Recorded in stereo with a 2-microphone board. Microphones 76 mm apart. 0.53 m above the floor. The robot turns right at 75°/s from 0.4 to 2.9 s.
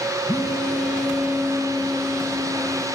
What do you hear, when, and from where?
0.3 s a phone buzzing: 125° left, 6.5 m; by 2.9 s 50° right, 6.5 m